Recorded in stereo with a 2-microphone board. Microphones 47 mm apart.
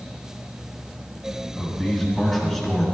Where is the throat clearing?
No throat clearing in this recording.